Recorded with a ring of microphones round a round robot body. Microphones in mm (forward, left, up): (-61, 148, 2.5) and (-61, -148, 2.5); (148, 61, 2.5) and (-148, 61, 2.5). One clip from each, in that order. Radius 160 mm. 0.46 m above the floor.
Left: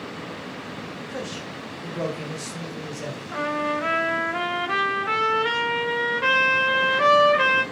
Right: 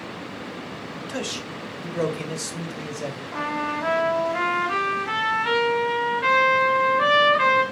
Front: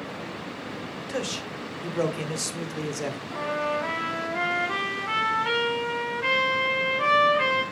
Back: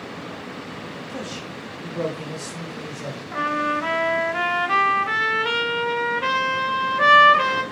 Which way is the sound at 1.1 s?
45° right.